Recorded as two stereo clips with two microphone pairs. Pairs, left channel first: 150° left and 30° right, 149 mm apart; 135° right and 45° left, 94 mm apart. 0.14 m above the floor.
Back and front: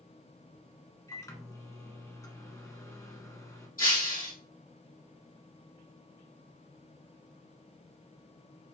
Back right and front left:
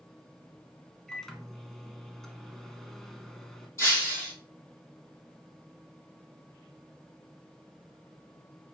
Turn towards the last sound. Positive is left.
turn(degrees=165)